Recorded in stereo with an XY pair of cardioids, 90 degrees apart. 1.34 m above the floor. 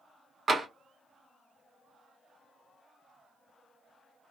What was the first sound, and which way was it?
Tapping, 50° right.